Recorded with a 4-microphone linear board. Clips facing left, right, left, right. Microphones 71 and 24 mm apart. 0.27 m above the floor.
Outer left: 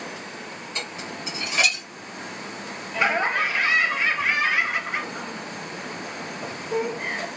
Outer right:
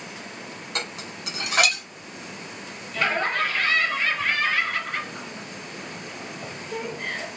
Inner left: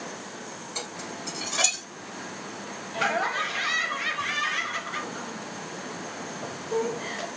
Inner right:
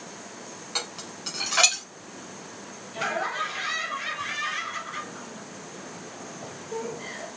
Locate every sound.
0.8 s dishes clattering: 70° right (ahead or behind), 1.6 m
2.9 s laughter: 15° left (ahead or behind), 0.9 m